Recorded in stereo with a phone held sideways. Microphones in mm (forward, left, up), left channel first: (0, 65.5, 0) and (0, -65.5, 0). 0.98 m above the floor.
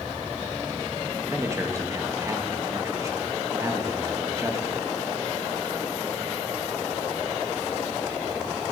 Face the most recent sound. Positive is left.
turn(degrees=-25)  # may be behind; listen again after turning